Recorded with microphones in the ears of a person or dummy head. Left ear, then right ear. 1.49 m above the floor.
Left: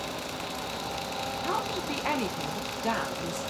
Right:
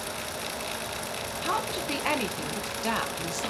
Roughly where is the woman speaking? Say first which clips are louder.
Right 3 dB; centre.